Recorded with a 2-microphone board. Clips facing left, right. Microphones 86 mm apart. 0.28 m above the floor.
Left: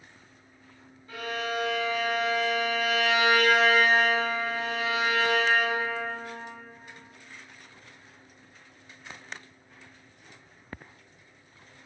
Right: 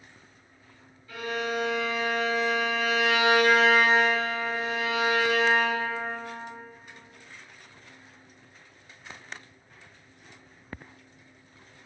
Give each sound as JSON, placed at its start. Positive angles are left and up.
{"t": 1.1, "sound": "a violin", "side_deg": 35, "distance_m": 1.7}